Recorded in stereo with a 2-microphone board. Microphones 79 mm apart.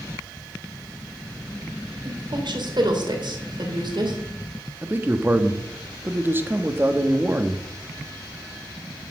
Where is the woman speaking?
70° right (ahead or behind), 3 m.